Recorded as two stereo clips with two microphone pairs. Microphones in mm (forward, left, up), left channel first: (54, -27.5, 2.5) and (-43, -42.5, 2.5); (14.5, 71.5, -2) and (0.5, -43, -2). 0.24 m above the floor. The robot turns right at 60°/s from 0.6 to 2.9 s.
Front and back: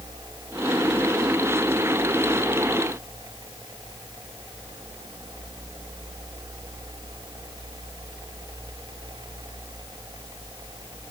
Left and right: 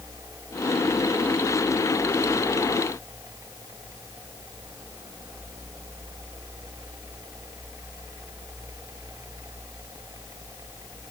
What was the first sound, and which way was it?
Only background noise.